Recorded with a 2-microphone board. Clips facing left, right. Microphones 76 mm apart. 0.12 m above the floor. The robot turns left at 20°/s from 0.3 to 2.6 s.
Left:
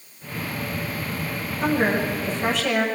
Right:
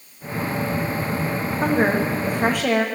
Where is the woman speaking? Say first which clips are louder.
Right 2 dB; 35° right (ahead or behind), 7 m; by 2.9 s 55° right (ahead or behind), 7 m.